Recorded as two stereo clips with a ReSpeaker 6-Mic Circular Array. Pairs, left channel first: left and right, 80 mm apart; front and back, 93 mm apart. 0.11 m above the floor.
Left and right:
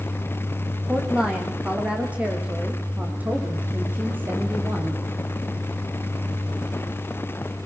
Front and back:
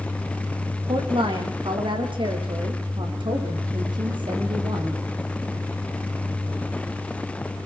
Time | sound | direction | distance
0.9 | a woman speaking | 170° right | 5.5 m